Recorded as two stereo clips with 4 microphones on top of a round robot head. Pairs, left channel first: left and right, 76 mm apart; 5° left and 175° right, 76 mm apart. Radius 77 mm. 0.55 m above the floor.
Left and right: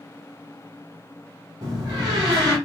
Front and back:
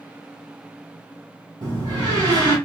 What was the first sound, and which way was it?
A door slam, 140° right.